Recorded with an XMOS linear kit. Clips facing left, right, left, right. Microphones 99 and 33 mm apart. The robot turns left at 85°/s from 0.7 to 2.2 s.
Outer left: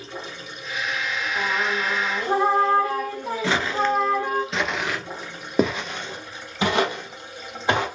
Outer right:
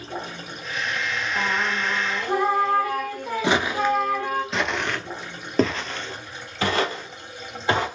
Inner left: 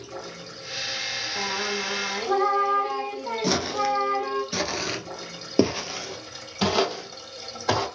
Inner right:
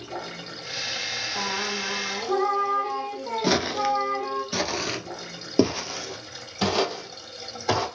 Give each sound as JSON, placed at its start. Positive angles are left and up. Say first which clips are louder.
{"t": 0.0, "sound": "running water", "louder": "outer right 3 dB, inner right 3 dB", "azimuth_deg": -60, "distance_m": 2.0}
{"t": 1.4, "sound": "singing", "louder": "outer left 1 dB, inner left 1 dB", "azimuth_deg": -155, "distance_m": 1.0}
{"t": 3.4, "sound": "footsteps", "louder": "outer right 1 dB, inner right 1 dB", "side_deg": -20, "distance_m": 0.8}